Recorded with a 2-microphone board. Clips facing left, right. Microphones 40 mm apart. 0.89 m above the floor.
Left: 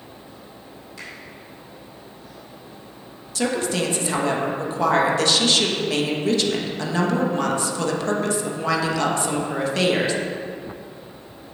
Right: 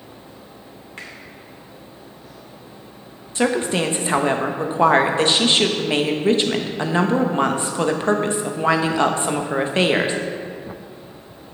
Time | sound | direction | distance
1.0 | a finger snap | 45° right (ahead or behind) | 2.5 m
3.4 | a woman speaking | 30° right (ahead or behind) | 0.9 m